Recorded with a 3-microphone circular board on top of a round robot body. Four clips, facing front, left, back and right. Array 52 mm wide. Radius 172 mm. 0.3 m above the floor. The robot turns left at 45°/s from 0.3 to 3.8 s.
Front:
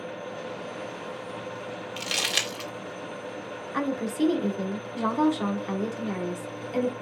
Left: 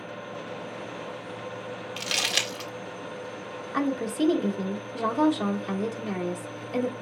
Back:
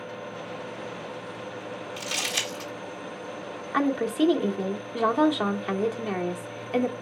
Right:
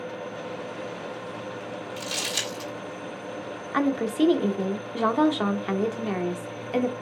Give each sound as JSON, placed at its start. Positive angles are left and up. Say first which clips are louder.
{"t": 2.0, "sound": "crumpling", "louder": "left 4 dB, front 2 dB", "azimuth_deg": 65, "distance_m": 2.5}
{"t": 3.7, "sound": "a woman speaking", "louder": "right 3 dB, back 4 dB", "azimuth_deg": -130, "distance_m": 1.3}